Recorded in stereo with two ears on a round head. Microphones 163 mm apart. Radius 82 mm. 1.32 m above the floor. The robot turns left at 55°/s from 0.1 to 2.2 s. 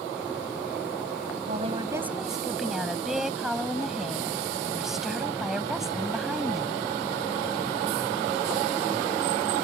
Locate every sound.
1.5 s a woman speaking: 140° right; by 6.8 s straight behind